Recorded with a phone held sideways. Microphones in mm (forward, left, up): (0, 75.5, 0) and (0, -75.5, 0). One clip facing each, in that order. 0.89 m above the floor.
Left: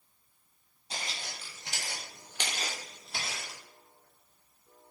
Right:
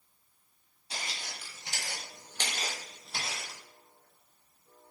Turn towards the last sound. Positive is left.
turn(degrees=-5)  # may be behind; listen again after turning